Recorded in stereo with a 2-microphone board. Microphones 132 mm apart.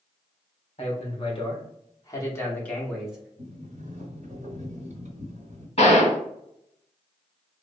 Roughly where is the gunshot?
Left.